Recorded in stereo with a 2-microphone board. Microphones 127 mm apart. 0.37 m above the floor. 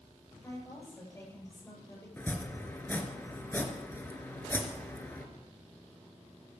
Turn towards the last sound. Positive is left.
turn(degrees=15)  # may be behind; listen again after turning